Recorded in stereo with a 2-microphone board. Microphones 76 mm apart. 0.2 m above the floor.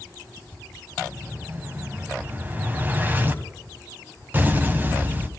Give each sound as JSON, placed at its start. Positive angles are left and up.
{"t": 1.0, "sound": "an explosion", "side_deg": -25, "distance_m": 1.2}